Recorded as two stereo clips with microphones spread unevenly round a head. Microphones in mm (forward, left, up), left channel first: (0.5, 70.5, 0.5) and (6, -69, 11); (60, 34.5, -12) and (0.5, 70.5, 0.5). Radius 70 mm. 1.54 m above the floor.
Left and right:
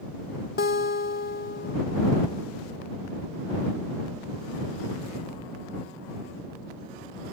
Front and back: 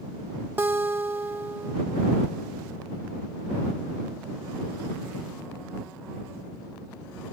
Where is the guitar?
100° left.